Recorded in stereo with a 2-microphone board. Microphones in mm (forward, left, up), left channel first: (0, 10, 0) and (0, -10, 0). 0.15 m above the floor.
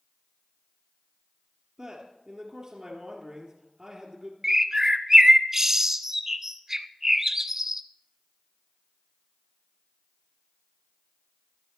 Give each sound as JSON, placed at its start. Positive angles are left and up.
{"t": 1.8, "sound": "a man speaking", "side_deg": -30, "distance_m": 2.5}
{"t": 4.4, "sound": "a bird", "side_deg": -20, "distance_m": 0.5}